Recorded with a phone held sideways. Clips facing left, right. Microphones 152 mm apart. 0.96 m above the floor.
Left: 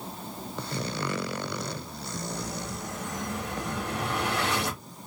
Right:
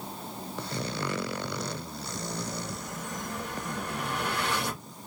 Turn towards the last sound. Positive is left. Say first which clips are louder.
# even
turn(degrees=85)